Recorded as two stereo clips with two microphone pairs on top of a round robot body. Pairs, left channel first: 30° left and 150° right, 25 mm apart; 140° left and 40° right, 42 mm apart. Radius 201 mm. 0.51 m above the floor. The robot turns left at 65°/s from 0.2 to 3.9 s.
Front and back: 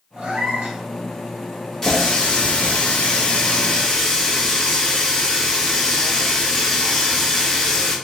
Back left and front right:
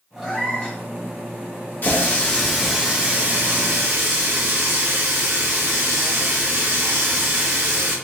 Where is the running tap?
95° left, 1.9 m; by 8.0 s 40° right, 1.9 m.